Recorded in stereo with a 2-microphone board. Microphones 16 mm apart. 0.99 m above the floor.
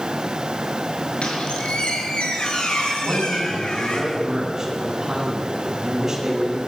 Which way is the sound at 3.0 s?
20° right (ahead or behind).